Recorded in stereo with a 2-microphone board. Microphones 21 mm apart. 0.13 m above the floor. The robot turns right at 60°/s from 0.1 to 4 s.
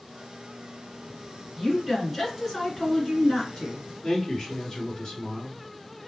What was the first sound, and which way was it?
A woman speaking, 25° right.